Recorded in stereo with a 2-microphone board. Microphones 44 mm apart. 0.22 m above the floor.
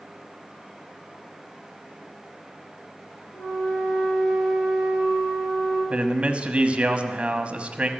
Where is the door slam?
No door slam in this recording.